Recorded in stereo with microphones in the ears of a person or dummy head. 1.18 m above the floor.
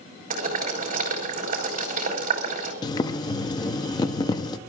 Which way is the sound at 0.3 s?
45° right (ahead or behind).